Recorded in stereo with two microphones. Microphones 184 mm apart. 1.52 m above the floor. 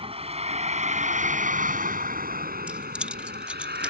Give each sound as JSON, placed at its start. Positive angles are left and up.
{"t": 0.0, "sound": "a vehicle", "side_deg": -30}
{"t": 2.7, "sound": "keys jangling", "side_deg": -5}